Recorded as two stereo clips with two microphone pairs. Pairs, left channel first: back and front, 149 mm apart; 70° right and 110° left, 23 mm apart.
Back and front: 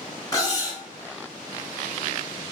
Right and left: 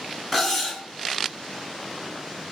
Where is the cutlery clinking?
145° right, 0.9 m.